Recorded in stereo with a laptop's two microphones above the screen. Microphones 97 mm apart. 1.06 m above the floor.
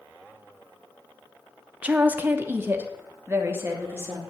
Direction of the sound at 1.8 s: 15° right (ahead or behind).